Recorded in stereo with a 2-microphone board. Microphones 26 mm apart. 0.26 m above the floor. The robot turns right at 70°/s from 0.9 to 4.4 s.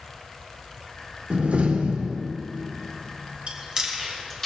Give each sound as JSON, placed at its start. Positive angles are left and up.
{"t": 1.3, "sound": "a door slam", "azimuth_deg": -110, "distance_m": 2.0}
{"t": 3.5, "sound": "chewing", "side_deg": -50, "distance_m": 4.0}